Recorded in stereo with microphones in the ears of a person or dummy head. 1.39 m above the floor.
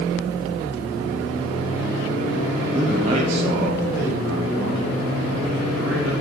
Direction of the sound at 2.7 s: 10° right (ahead or behind).